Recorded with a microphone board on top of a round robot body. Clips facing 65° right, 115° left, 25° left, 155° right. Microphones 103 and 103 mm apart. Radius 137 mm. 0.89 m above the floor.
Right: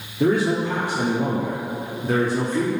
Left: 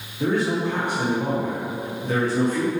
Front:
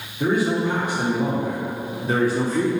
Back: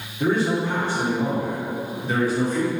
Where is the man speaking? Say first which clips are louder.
Right 3 dB, front 1 dB; 65° right, 2.0 m; by 2.7 s 15° right, 1.8 m.